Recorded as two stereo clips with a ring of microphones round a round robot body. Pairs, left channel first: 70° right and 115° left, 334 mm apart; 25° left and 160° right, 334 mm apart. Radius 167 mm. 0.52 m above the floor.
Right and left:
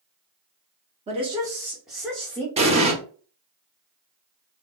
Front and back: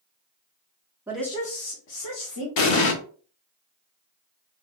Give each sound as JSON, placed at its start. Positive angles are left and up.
{"t": 1.1, "sound": "a woman speaking", "azimuth_deg": 135, "distance_m": 0.7}
{"t": 2.6, "sound": "an explosion", "azimuth_deg": 45, "distance_m": 0.7}